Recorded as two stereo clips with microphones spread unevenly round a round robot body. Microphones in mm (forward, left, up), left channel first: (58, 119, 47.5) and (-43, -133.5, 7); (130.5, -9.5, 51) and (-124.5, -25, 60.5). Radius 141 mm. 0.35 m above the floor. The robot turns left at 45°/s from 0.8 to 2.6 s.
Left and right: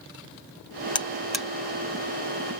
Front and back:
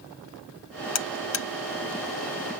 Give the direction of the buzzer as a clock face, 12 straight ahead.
12 o'clock.